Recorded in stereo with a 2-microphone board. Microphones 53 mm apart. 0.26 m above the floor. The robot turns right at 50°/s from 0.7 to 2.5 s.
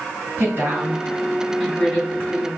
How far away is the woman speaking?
About 2.5 m.